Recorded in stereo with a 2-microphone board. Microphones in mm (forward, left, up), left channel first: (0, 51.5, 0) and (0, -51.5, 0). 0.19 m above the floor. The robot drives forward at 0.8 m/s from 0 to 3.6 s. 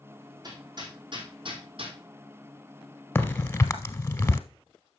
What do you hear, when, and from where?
0.4 s hammering: 45° right (ahead or behind), 3 m; by 2.0 s 65° right (ahead or behind), 2 m
3.1 s a crack: 20° left (ahead or behind), 1.2 m; by 4.4 s 25° left (ahead or behind), 0.8 m